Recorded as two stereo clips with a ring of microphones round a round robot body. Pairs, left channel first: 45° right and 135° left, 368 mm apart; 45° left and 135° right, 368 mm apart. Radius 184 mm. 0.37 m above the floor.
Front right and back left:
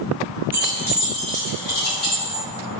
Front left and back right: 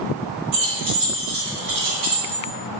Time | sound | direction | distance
0.5 | keys jangling | 145° right | 1.2 m